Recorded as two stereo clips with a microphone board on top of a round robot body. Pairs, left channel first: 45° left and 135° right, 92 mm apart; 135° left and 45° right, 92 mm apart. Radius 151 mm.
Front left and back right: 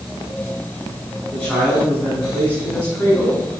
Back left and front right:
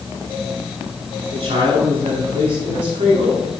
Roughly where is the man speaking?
Ahead right.